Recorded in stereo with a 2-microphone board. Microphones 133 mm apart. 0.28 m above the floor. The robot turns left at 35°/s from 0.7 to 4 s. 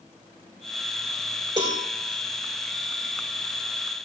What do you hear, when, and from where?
1.6 s a cowbell: 35° right (ahead or behind), 2.5 m; by 1.8 s 25° right (ahead or behind), 2.5 m